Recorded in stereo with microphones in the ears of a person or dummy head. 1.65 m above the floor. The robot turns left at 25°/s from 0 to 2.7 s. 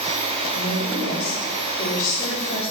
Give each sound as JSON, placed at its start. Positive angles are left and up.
{"t": 0.5, "sound": "a woman speaking", "azimuth_deg": 90, "distance_m": 1.1}